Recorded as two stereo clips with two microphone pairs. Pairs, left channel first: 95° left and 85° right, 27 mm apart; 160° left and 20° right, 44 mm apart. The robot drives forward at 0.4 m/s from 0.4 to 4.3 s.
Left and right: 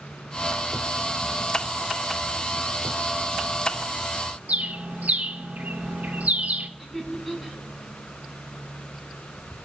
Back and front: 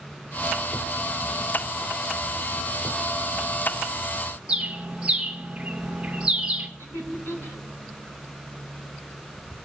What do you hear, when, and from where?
4.5 s a bird: 85° right, 1.3 m
6.8 s laughter: straight behind, 7.5 m